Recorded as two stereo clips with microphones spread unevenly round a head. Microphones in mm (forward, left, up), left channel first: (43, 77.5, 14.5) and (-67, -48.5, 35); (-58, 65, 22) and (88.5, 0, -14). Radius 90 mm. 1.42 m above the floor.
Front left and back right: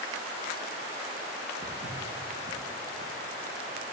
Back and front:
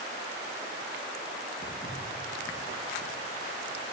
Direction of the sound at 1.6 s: 175° right.